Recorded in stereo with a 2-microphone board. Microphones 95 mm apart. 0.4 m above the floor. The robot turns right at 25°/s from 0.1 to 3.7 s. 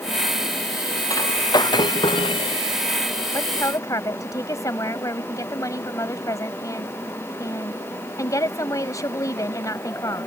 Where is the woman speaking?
30° left (ahead or behind); by 10.3 s 40° left (ahead or behind).